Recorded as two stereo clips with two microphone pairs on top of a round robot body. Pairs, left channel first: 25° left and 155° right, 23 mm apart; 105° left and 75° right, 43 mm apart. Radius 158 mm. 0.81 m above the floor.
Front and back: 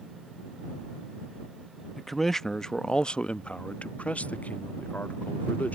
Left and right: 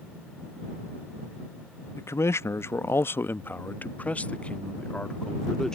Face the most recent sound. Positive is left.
turn(degrees=25)